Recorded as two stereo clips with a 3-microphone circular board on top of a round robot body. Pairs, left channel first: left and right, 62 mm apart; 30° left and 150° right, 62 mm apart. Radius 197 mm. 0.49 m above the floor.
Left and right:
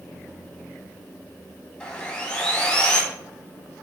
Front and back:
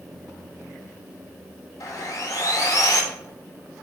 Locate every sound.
1.8 s sawing: 20° left, 2.5 m